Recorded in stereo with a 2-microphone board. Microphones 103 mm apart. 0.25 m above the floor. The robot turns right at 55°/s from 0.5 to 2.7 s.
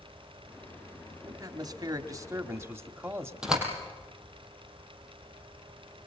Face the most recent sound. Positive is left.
turn(degrees=-10)  # may be behind; listen again after turning